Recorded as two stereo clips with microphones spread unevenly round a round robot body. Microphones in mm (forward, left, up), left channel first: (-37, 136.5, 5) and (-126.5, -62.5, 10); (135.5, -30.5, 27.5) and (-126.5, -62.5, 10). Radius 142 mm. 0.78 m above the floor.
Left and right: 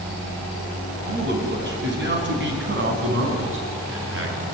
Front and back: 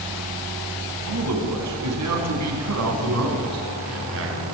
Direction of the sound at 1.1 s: 155° right.